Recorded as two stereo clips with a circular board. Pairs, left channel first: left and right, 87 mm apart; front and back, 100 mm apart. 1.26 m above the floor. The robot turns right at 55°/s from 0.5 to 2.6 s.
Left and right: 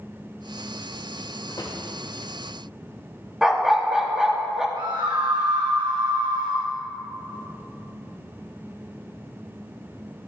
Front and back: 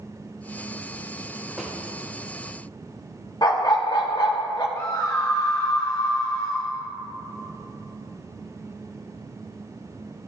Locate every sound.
1.5 s a drawer: 90° left, 1.5 m; by 1.8 s 105° left, 1.5 m
3.4 s a dog barking: 10° right, 0.8 m
4.8 s a scream: 60° right, 0.6 m